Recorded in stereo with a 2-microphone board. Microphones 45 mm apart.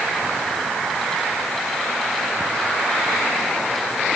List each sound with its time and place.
Only background noise.